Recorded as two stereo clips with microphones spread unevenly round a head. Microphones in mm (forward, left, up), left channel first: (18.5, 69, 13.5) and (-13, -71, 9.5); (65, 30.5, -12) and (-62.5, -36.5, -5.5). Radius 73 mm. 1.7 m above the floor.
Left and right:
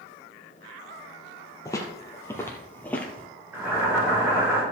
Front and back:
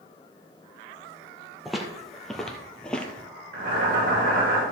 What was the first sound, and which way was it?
Footsteps, 125° left.